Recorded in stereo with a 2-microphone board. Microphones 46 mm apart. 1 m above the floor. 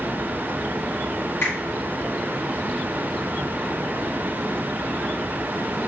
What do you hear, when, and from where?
1.4 s a finger snap: 60° left (ahead or behind), 1.9 m